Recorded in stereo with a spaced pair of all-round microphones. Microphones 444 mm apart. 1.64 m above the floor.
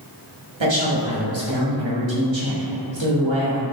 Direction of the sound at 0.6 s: 80° right.